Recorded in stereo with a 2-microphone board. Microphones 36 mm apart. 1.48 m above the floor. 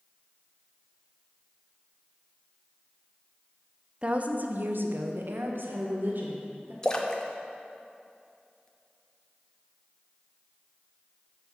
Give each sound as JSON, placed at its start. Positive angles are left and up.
{"t": 4.0, "sound": "a woman speaking", "side_deg": -25, "distance_m": 0.6}
{"t": 6.8, "sound": "a splash", "side_deg": 20, "distance_m": 0.6}